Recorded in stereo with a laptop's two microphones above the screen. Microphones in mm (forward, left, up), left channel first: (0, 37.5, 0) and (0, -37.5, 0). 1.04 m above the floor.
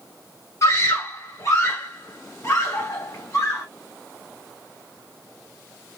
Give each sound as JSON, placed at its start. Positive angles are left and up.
{"t": 0.6, "sound": "a scream", "side_deg": 40, "distance_m": 1.5}